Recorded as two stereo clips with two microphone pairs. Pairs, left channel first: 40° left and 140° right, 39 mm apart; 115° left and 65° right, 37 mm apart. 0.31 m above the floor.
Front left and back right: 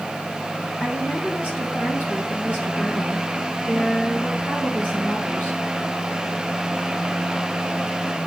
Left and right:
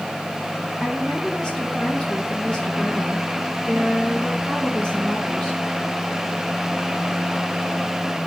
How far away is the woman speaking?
About 5.5 m.